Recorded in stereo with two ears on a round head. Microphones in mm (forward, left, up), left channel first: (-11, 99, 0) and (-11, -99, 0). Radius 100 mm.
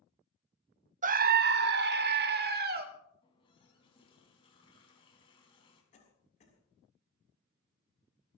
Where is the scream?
35° right (ahead or behind), 0.6 m; by 2.9 s 50° right (ahead or behind), 1.8 m.